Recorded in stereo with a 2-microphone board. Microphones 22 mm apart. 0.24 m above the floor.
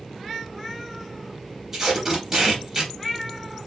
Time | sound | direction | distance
1.7 | tape being pulled | 25° right (ahead or behind) | 3 m